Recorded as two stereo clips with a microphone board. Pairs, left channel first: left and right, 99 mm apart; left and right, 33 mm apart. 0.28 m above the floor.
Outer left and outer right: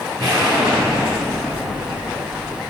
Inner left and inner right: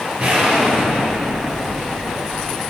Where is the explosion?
50° right (ahead or behind), 5 m.